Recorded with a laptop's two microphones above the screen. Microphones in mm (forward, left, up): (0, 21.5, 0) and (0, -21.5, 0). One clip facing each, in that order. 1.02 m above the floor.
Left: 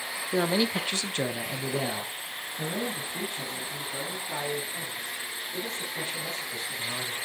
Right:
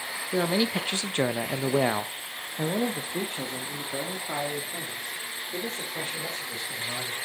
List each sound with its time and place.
0.3 s a man speaking: 5° left (ahead or behind), 1.1 m; by 7.2 s 60° right (ahead or behind), 4.5 m